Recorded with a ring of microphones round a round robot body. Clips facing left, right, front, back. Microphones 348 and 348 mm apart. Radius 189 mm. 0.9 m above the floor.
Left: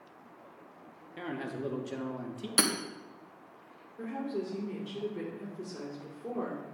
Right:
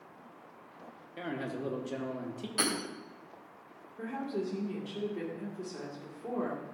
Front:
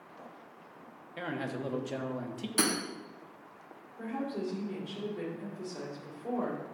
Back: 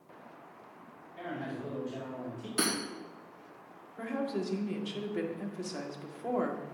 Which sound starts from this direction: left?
Hammering, at 2.6 s.